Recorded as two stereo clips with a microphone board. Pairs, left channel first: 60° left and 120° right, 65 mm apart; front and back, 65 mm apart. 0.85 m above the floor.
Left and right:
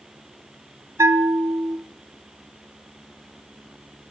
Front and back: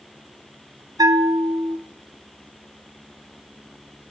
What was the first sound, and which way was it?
A bell, 160° right.